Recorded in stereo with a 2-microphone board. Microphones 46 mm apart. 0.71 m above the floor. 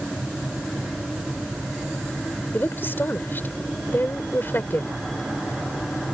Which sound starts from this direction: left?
A woman speaking, at 2.5 s.